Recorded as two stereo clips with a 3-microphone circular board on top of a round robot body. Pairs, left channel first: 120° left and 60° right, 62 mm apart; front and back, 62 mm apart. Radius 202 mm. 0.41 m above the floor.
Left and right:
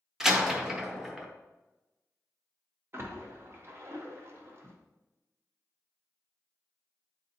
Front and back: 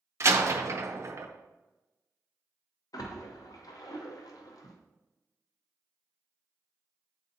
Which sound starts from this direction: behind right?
A door slam, at 0.2 s.